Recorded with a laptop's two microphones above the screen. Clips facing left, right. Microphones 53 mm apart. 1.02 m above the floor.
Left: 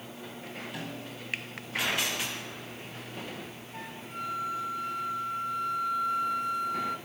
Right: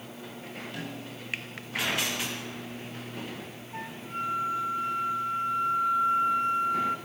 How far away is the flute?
About 1.1 m.